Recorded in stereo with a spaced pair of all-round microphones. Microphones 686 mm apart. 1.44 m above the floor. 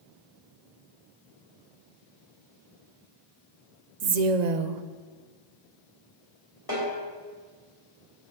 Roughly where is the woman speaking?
Right.